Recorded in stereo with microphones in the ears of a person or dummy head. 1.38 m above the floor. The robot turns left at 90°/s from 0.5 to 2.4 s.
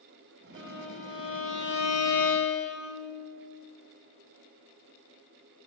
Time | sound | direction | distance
0.5 | a violin | 150° right | 1.5 m